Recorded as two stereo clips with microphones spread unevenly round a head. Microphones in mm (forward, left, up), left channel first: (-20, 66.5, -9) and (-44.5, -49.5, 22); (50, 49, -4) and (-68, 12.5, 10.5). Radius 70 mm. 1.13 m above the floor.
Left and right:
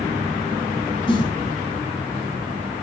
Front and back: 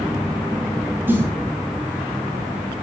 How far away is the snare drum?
About 9.5 m.